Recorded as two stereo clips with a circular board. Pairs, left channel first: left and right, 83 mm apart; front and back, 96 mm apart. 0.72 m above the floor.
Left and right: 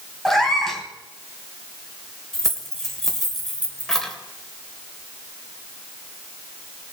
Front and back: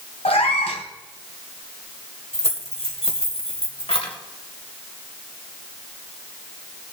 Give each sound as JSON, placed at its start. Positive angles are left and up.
{"t": 0.2, "sound": "a cat meowing", "azimuth_deg": 5, "distance_m": 2.0}
{"t": 2.3, "sound": "keys jangling", "azimuth_deg": 5, "distance_m": 2.0}